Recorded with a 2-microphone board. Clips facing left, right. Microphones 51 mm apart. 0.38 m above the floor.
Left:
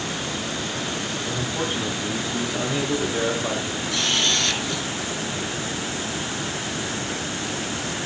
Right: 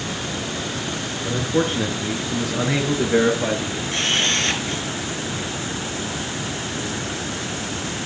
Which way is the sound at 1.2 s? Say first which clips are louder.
Right 8 dB; 60° right (ahead or behind).